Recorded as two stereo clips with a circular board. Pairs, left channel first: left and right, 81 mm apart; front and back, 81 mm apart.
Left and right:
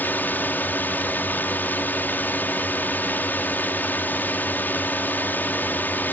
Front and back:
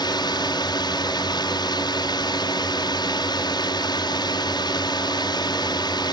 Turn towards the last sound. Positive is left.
turn(degrees=25)